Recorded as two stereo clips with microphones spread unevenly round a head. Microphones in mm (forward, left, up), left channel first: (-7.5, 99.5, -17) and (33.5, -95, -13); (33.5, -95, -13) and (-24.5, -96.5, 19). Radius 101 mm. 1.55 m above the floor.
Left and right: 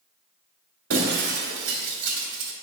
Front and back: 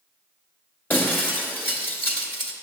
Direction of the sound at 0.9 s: 65° right.